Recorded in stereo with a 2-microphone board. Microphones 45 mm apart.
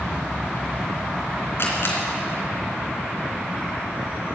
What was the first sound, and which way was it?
A camera shutter, 55° left (ahead or behind).